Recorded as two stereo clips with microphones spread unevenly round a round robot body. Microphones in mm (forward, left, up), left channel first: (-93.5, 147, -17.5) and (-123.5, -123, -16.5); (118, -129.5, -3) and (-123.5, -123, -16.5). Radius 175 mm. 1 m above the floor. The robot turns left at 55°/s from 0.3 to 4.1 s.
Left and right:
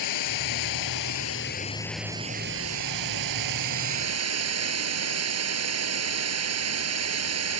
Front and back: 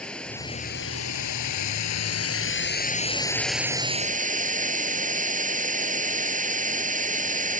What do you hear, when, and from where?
0.0 s running water: 85° left; by 7.6 s 125° right